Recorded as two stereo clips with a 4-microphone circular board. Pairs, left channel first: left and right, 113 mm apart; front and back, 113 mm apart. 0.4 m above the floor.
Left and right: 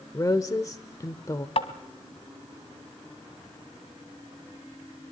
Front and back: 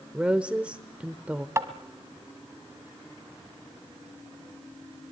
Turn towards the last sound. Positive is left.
turn(degrees=120)